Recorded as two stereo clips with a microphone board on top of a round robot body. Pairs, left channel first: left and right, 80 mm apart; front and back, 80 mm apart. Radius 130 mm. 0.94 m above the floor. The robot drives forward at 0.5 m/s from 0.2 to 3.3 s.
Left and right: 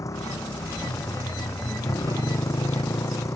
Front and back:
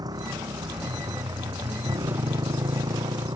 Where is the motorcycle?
140° left; by 3.4 s 145° left.